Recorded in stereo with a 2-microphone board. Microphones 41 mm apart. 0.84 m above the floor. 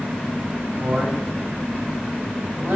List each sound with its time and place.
0.8 s a man speaking: 50° right (ahead or behind), 5 m